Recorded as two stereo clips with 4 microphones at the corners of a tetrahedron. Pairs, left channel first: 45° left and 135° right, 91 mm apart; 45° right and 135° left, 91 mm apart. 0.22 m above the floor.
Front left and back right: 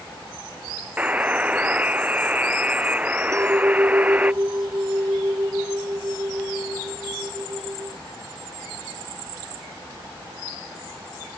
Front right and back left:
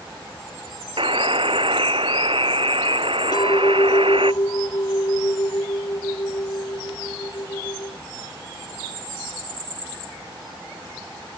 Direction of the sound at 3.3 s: 80° right.